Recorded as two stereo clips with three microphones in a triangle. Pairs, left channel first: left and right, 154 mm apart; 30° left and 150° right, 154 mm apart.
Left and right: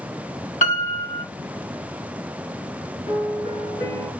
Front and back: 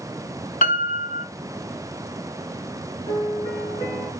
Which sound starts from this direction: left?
A piano, at 3.1 s.